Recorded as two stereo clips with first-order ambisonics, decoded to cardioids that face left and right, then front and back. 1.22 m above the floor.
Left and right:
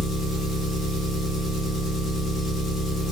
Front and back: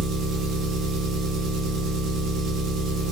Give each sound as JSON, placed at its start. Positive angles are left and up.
{"t": 0.0, "sound": "an engine running", "azimuth_deg": 155, "distance_m": 0.7}